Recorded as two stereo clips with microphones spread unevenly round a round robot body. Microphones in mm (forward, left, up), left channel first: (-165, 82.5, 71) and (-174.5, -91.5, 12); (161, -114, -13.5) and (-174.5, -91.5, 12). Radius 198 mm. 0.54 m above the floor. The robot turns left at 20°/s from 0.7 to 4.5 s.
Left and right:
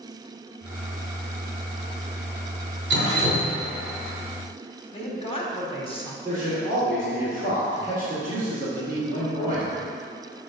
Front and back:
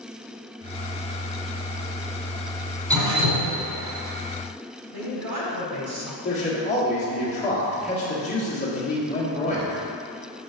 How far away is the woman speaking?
About 2 m.